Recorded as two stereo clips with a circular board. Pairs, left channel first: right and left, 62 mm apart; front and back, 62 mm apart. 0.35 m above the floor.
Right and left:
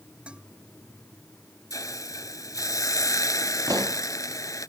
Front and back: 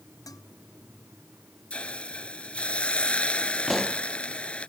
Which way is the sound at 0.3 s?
15° left.